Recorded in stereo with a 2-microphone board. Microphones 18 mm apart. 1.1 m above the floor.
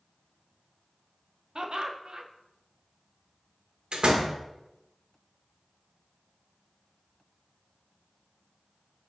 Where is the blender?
No blender in this recording.